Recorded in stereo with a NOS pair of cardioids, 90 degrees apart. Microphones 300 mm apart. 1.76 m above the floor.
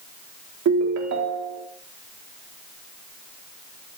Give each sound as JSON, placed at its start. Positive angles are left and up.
{"t": 0.7, "sound": "a ringtone", "azimuth_deg": -70, "distance_m": 3.0}